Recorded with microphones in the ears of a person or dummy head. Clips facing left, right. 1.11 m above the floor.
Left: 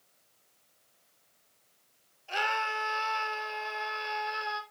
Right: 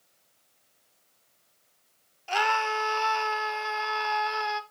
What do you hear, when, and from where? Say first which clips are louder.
2.3 s a scream: right 6 dB; 90° right, 2.5 m